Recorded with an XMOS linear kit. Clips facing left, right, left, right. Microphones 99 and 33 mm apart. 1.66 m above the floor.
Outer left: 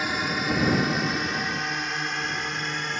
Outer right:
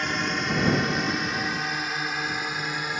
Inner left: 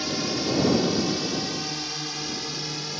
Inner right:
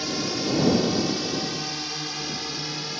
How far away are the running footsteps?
I don't hear running footsteps.